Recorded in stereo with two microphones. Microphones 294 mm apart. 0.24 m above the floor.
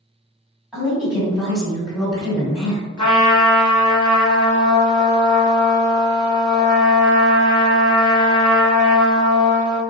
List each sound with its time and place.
0.7 s a woman speaking: 5° right (ahead or behind), 1.8 m
3.0 s a trumpet: 80° left, 0.8 m